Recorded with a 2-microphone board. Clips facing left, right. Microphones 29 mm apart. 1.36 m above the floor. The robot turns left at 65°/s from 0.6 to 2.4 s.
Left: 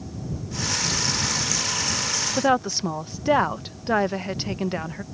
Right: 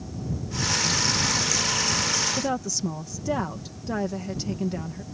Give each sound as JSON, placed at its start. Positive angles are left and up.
{"t": 2.4, "sound": "a woman speaking", "side_deg": 45}